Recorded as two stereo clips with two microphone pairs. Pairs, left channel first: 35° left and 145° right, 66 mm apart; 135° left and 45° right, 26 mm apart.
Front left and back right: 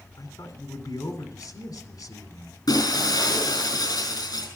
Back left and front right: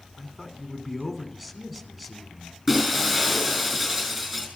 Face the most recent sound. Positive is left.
turn(degrees=35)